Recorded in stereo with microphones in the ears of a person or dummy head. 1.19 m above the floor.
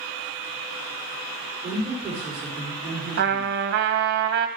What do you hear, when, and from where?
1.6 s a woman speaking: 25° right (ahead or behind), 4.5 m
3.2 s a trumpet: 55° right (ahead or behind), 0.7 m